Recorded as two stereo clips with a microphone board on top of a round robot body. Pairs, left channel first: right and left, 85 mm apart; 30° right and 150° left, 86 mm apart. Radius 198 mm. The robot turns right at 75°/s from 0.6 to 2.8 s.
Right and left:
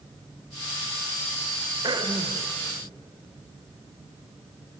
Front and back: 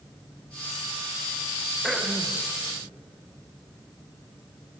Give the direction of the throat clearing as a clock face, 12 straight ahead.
10 o'clock.